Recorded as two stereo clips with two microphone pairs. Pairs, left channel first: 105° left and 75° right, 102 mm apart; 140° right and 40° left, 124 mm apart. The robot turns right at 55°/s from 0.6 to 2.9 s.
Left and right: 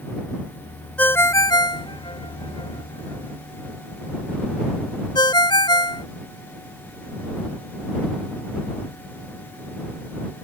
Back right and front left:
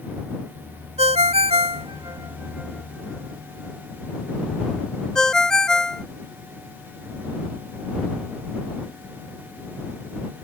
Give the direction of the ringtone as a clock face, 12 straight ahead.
11 o'clock.